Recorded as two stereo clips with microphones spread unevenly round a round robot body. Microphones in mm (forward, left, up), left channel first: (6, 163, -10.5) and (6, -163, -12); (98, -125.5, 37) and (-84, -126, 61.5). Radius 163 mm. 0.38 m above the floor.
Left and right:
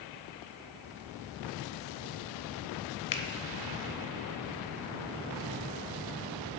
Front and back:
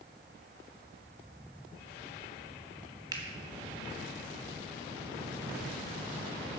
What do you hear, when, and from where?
3.1 s a finger snap: 115° left, 0.9 m